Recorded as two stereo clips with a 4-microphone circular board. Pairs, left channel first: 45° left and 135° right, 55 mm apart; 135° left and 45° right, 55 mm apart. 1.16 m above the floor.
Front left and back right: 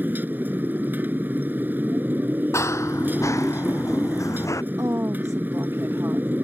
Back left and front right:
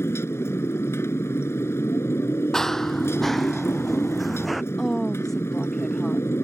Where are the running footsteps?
55° left; by 4.6 s 45° left.